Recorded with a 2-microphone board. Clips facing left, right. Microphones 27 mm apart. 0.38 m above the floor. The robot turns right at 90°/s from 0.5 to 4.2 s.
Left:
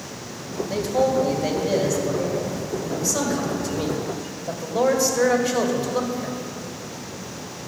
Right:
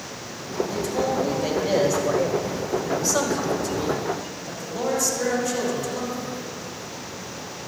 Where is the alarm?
No alarm in this recording.